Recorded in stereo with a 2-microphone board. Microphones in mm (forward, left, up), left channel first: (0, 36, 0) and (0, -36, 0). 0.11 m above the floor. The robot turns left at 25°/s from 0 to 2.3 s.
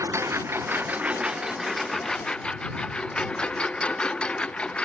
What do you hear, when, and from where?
0.0 s a lawn mower: 45° right (ahead or behind); by 4.8 s 15° left (ahead or behind)